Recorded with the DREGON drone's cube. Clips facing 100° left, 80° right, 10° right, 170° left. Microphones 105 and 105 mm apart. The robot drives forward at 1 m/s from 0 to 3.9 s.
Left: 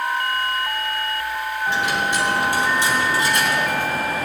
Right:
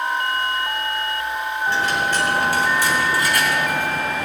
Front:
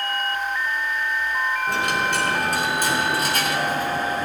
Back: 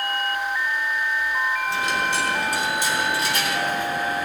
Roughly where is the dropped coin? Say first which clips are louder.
Right 1 dB, front 1 dB; ahead left.